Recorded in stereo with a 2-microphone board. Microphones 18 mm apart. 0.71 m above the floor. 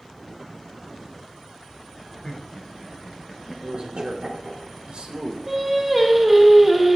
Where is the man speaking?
65° right (ahead or behind), 1.7 m.